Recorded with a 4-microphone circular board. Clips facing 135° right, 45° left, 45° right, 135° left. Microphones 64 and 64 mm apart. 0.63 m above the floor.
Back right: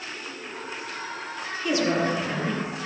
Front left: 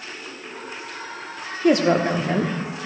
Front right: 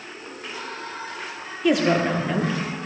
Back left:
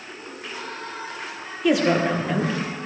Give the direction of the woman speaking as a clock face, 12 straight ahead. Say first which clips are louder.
Front left 6 dB, even; 11 o'clock.